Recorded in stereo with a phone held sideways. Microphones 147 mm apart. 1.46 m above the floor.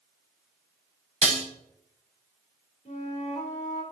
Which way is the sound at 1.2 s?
50° right (ahead or behind).